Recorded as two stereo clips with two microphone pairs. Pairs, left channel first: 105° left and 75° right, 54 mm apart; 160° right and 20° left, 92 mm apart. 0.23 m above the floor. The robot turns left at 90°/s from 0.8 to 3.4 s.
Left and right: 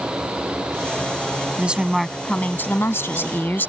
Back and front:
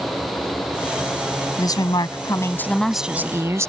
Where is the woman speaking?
125° right; by 3.7 s 70° left.